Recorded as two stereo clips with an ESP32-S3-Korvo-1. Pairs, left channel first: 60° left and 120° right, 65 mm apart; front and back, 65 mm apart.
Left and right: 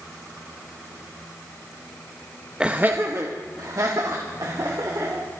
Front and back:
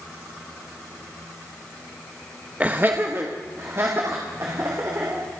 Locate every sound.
2.6 s laughter: 170° right, 0.8 m; by 5.2 s 135° right, 3 m